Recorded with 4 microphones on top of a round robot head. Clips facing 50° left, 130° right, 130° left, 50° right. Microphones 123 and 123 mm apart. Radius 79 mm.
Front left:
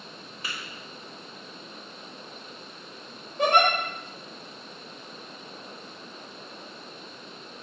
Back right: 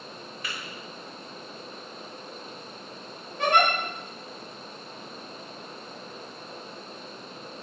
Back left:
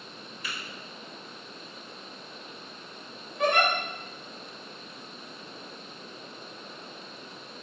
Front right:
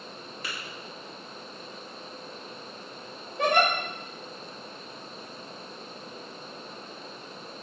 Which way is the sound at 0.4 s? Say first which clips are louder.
Even, front right 1 dB; 15° right.